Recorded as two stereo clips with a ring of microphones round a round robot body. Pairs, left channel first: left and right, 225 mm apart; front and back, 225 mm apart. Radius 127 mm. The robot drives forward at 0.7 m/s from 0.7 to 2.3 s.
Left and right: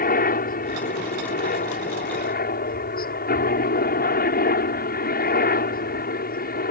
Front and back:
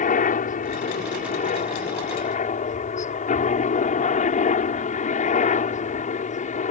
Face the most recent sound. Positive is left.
turn(degrees=50)